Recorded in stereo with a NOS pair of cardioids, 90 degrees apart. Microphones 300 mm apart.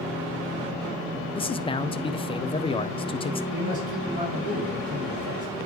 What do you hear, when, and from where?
1.4 s a man speaking: 15° left, 0.6 m
3.5 s a man speaking: 25° right, 3.5 m